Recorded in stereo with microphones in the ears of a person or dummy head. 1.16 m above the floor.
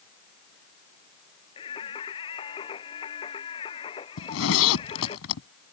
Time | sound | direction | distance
1.6 | singing | 30° left (ahead or behind) | ?
4.2 | a zipper | 75° left (ahead or behind) | ?